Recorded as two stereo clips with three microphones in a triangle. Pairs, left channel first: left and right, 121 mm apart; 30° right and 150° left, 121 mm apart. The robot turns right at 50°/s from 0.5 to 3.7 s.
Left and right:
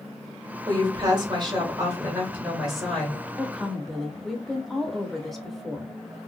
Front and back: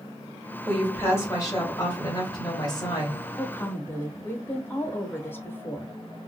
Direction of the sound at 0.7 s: 105° right.